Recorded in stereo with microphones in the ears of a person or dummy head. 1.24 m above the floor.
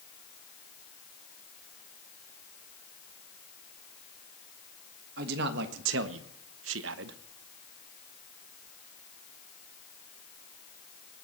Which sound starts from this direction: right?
A man speaking, at 5.2 s.